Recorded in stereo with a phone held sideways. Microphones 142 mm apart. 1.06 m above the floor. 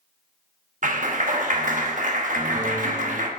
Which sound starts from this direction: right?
A clap, at 0.8 s.